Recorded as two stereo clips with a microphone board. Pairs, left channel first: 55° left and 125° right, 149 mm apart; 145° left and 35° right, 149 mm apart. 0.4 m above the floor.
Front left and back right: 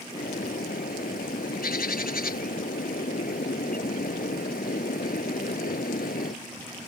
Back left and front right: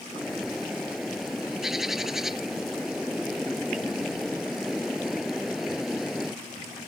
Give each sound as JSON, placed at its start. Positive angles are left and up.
{"t": 0.1, "sound": "a bird", "azimuth_deg": 55}